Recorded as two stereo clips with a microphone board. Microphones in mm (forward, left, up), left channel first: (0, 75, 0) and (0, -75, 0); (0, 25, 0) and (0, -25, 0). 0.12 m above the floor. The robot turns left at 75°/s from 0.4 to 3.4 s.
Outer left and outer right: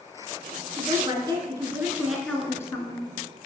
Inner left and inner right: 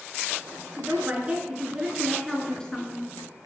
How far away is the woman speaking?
About 1.2 m.